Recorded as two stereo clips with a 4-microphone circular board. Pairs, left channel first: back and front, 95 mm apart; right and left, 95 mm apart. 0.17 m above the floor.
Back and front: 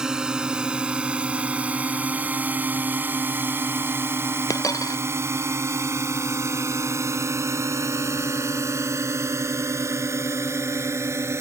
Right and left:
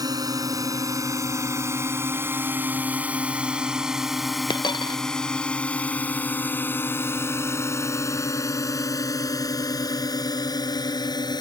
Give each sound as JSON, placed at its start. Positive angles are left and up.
{"t": 0.0, "sound": "a drone", "azimuth_deg": 80}
{"t": 4.5, "sound": "a dropped coin", "azimuth_deg": -125}